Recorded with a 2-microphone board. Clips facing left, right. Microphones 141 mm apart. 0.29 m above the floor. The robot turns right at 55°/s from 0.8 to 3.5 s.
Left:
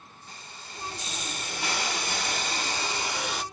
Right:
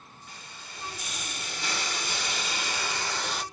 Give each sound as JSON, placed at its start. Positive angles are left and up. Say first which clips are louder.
{"t": 0.3, "sound": "a hiss", "louder": "left 2 dB", "azimuth_deg": 35, "distance_m": 0.7}